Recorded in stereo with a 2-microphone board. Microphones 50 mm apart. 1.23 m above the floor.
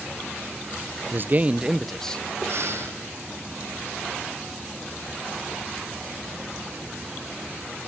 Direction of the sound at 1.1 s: 50° right (ahead or behind).